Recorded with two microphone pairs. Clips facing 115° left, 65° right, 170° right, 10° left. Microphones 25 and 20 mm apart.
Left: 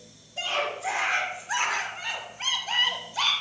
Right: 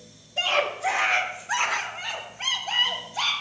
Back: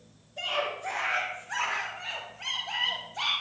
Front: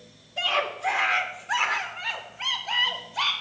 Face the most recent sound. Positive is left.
turn(degrees=45)